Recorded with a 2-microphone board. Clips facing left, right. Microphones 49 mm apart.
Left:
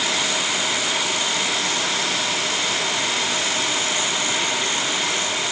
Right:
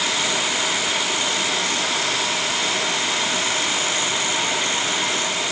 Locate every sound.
Only background noise.